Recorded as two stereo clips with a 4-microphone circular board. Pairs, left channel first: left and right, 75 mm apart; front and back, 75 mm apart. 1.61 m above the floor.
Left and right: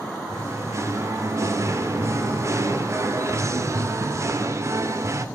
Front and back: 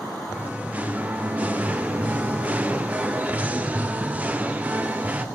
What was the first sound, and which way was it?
Singing, 115° right.